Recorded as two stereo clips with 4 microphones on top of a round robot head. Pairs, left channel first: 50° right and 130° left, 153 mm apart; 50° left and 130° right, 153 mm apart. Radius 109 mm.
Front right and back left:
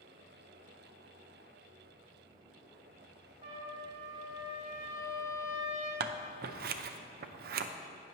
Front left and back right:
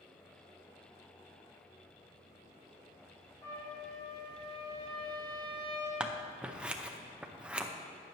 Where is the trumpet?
75° left, 3.5 m.